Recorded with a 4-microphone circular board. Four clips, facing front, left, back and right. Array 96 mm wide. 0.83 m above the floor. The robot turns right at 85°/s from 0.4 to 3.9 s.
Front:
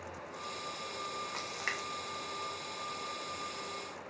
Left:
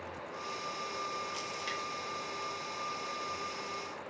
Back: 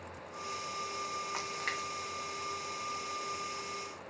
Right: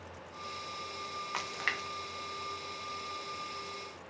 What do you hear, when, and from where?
1.3 s a splash: 100° right, 0.9 m; by 1.9 s 55° right, 0.9 m